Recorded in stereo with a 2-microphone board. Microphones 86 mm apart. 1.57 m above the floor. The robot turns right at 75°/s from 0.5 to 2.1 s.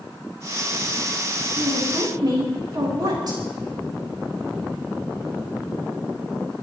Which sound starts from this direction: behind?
A woman speaking, at 1.6 s.